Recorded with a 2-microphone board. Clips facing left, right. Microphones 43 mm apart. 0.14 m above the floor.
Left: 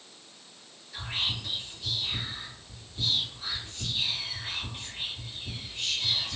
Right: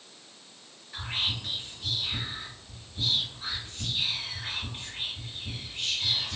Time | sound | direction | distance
0.9 | whispering | 25° right (ahead or behind) | 2.0 m